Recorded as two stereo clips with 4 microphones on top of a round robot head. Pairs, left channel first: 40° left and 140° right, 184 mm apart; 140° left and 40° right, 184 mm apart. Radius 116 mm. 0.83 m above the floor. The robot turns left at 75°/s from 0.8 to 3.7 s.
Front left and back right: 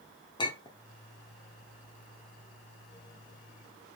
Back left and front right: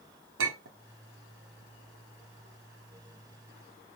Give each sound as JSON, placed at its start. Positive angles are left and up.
{"t": 0.4, "sound": "a clink", "azimuth_deg": -30, "distance_m": 1.6}